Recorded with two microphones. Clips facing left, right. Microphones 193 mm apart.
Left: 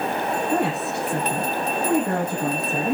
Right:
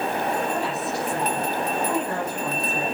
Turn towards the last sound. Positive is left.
turn(degrees=60)  # may be behind; listen again after turning